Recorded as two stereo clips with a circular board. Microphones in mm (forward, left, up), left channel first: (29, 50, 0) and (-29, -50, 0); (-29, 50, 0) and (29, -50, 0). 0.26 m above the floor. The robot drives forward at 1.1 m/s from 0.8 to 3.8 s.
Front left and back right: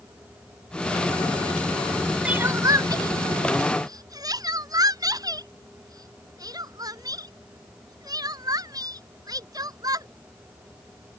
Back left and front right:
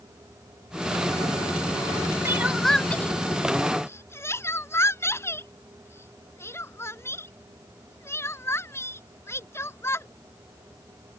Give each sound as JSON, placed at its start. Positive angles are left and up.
{"t": 2.2, "sound": "crying", "azimuth_deg": -55}